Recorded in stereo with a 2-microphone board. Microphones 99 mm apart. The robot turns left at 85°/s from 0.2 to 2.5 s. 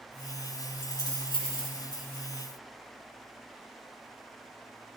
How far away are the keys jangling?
About 1.6 m.